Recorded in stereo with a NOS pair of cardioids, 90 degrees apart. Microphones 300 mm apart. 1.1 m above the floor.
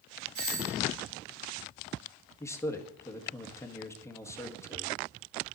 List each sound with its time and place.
0.3 s a doorbell: 70° right, 3.5 m
2.4 s a man speaking: 10° left, 1.6 m